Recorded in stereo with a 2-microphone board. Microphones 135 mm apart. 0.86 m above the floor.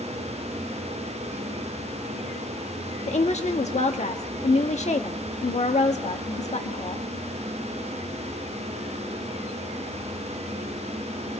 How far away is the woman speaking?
About 1.2 m.